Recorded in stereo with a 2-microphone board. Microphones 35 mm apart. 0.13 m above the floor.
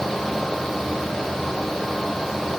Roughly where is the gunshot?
No gunshot in this recording.